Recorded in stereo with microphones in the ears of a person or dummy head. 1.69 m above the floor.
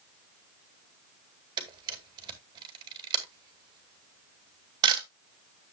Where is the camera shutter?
30° right (ahead or behind), 2 m.